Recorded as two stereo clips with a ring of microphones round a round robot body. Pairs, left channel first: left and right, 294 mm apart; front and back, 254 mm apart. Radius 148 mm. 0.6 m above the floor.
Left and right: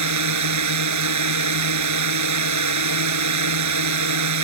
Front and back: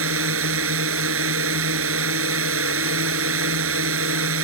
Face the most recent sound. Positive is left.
turn(degrees=-130)